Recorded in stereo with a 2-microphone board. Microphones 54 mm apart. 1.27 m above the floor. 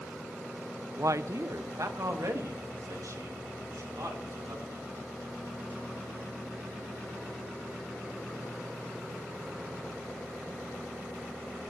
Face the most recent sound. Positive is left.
turn(degrees=-80)